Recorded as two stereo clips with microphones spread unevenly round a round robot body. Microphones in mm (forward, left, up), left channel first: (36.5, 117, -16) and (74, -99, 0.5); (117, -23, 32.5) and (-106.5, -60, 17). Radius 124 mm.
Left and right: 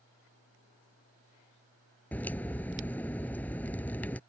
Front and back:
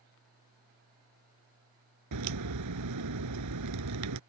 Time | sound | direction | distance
2.1 | a crack | 175° right | ?